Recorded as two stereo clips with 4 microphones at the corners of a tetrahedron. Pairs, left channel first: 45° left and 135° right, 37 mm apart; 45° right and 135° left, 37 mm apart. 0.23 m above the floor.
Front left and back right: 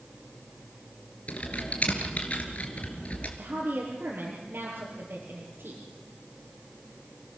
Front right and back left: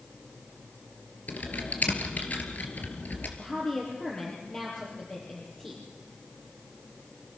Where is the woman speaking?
115° right, 5.5 m.